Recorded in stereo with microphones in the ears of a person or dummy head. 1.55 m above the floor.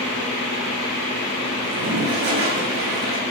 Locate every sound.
1.6 s a toilet flushing: 60° right (ahead or behind), 0.7 m